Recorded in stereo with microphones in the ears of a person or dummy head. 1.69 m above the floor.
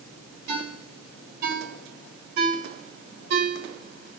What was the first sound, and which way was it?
A ringtone, 55° right (ahead or behind).